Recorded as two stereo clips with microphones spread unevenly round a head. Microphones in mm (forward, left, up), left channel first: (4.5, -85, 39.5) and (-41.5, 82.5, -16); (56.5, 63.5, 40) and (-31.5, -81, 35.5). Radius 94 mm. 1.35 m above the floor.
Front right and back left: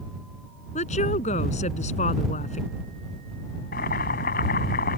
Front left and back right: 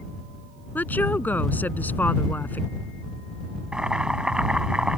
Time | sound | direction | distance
0.8 | a woman speaking | 20° right | ?
3.7 | boiling | 35° right | ?